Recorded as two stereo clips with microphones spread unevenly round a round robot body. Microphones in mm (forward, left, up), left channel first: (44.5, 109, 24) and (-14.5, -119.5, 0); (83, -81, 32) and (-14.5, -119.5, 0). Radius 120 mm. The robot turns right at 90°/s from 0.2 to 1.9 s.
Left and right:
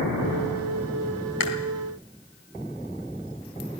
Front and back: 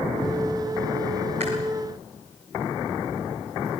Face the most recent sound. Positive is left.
turn(degrees=145)